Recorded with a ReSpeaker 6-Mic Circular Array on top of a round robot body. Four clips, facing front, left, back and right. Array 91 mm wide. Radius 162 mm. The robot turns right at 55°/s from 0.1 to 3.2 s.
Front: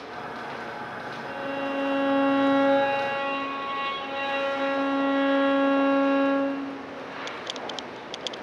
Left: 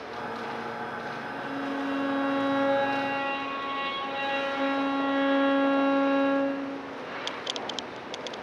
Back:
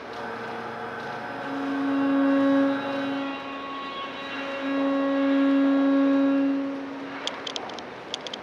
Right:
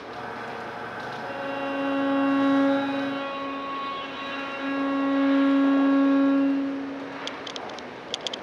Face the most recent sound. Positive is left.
turn(degrees=40)